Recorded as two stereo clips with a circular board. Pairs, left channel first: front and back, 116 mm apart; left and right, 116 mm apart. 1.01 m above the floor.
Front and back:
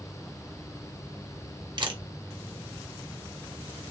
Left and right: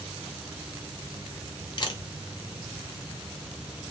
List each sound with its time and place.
1.8 s a camera shutter: 135° left, 0.6 m